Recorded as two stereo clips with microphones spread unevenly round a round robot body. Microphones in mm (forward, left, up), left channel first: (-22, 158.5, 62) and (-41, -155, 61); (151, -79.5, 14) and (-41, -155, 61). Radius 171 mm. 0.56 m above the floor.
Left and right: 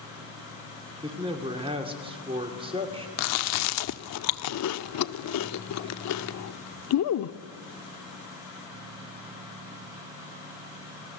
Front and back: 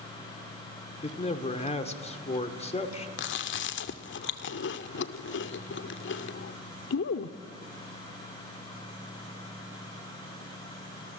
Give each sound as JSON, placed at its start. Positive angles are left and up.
{"t": 1.0, "sound": "a man speaking", "azimuth_deg": -25, "distance_m": 2.0}
{"t": 3.2, "sound": "chewing", "azimuth_deg": 45, "distance_m": 0.6}